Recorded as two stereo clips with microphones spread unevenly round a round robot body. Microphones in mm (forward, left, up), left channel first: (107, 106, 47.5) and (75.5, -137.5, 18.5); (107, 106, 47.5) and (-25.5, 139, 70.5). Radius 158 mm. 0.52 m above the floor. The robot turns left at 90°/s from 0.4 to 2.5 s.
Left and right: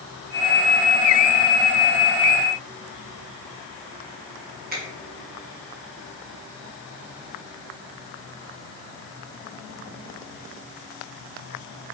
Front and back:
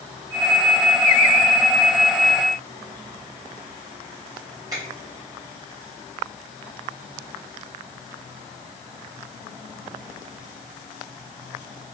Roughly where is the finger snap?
Behind right.